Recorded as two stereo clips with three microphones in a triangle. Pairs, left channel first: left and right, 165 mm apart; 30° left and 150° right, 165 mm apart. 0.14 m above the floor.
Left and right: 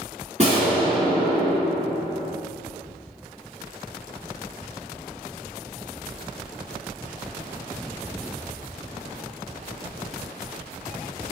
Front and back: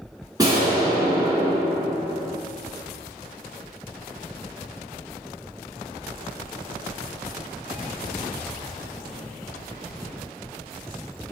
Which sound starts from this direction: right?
An explosion, at 0.4 s.